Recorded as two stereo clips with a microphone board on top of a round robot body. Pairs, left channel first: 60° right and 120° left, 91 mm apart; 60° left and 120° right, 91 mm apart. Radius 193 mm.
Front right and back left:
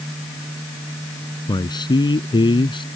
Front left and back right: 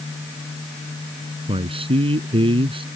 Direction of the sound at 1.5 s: 100° right.